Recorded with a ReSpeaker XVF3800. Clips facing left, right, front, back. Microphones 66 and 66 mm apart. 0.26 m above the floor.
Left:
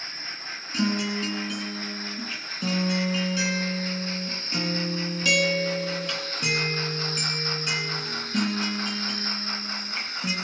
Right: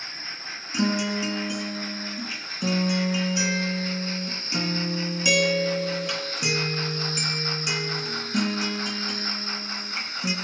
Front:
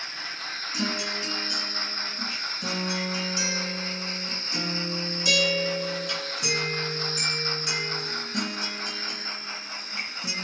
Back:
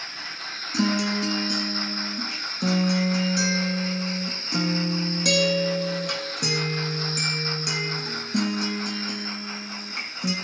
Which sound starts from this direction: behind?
A guitar, at 0.7 s.